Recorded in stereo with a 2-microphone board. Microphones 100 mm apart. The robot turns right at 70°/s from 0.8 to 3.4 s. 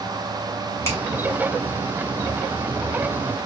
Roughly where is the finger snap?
Left.